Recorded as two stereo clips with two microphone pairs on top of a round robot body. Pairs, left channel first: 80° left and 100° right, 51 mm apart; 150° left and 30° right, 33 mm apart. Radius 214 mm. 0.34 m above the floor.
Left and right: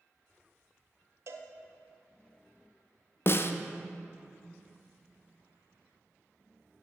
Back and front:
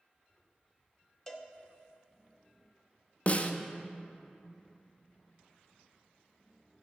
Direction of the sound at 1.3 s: 135° right.